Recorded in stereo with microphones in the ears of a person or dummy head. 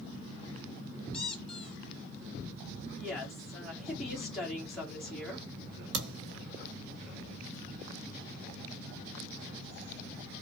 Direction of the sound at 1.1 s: 5° left (ahead or behind).